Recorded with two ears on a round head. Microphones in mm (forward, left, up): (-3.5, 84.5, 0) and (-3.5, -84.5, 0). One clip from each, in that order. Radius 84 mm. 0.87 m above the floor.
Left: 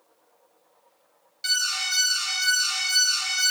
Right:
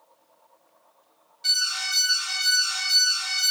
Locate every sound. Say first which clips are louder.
1.4 s an alarm: right 1 dB; 40° left (ahead or behind), 1.5 m